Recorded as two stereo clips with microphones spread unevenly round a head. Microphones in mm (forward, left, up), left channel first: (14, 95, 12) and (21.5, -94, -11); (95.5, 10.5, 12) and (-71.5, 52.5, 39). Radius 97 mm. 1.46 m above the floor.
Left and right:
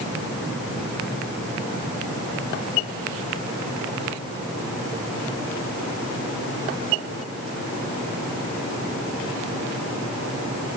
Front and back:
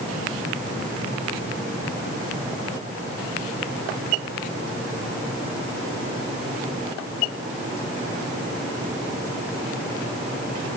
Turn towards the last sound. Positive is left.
No sound to turn to.